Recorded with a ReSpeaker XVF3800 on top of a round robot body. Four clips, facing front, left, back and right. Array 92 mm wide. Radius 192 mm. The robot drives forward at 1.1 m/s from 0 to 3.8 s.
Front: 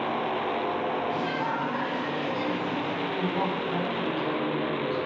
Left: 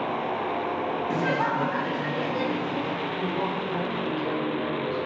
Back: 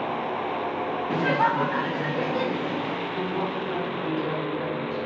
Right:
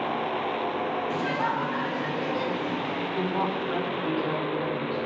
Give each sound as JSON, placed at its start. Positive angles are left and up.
{"t": 1.1, "sound": "laughter", "azimuth_deg": 150, "distance_m": 0.9}
{"t": 3.2, "sound": "a woman speaking", "azimuth_deg": -105, "distance_m": 3.5}